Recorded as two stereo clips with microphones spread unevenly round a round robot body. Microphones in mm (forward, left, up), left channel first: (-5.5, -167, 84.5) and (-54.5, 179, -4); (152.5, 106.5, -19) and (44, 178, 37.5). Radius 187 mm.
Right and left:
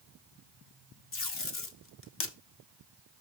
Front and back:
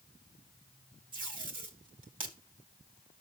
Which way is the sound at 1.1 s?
140° right.